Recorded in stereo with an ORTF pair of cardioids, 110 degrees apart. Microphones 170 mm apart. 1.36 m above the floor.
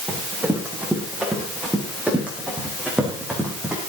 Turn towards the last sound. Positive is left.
turn(degrees=-5)